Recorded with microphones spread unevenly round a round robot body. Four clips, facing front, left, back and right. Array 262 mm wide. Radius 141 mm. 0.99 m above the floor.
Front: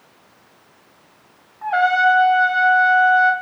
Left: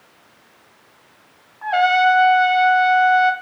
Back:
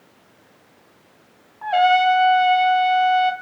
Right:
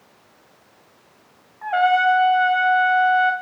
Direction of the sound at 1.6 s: 175° left.